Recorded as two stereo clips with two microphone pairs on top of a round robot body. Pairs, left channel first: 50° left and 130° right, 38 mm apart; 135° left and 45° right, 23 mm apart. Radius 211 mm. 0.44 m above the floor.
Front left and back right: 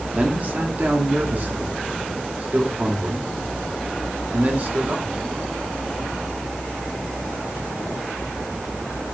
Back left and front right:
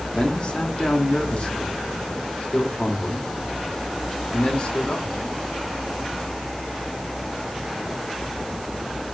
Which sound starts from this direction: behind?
A man speaking, at 0.1 s.